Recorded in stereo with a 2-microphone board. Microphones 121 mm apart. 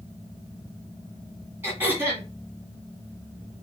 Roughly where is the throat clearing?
Centre.